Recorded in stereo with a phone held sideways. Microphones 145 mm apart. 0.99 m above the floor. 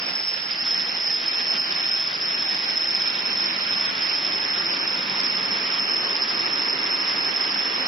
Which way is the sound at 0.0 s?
5° left (ahead or behind).